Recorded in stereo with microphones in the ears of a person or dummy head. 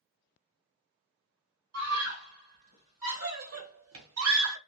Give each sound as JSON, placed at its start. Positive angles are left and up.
{"t": 1.7, "sound": "a scream", "side_deg": -80, "distance_m": 2.0}